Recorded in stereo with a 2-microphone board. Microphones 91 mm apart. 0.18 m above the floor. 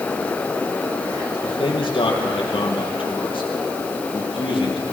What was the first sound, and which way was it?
A man speaking, 75° left (ahead or behind).